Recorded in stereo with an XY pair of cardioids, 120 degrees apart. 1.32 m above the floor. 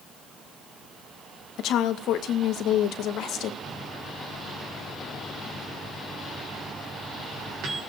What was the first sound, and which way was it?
A woman speaking, 70° left.